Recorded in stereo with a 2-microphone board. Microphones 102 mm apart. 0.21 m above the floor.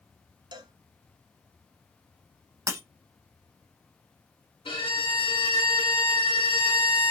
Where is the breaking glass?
30° right (ahead or behind), 0.6 m.